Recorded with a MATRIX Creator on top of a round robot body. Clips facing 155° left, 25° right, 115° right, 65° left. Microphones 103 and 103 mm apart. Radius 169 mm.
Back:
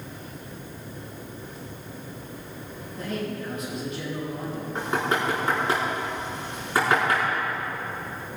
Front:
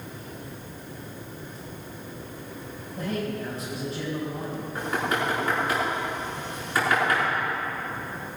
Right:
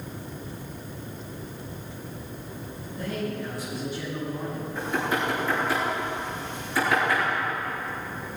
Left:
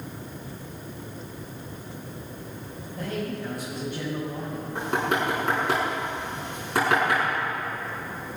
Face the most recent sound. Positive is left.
turn(degrees=95)